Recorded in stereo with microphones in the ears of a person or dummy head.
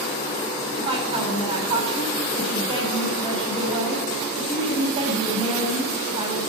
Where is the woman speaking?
35° right (ahead or behind), 6.5 m.